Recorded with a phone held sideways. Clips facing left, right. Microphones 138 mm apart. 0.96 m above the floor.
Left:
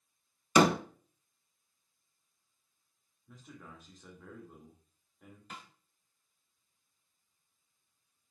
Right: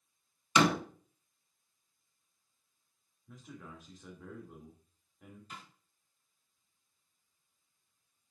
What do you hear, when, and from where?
0.6 s a door slam: 45° left (ahead or behind), 0.9 m
3.3 s a man speaking: centre (ahead or behind), 2.5 m
5.5 s a snare drum: 70° left (ahead or behind), 3 m